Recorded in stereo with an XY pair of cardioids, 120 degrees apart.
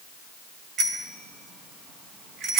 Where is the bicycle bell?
65° right, 6.5 m; by 2.6 s 75° right, 6 m.